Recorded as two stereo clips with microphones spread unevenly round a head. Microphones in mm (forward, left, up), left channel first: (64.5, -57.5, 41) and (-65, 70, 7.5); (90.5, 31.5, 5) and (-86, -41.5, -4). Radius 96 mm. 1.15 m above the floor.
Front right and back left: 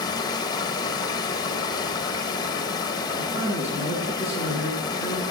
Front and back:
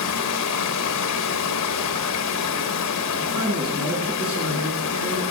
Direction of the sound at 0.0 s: 25° left.